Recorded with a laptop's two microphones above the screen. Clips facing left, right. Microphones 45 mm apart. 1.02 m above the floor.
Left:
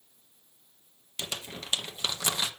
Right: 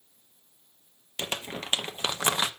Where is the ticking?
No ticking in this recording.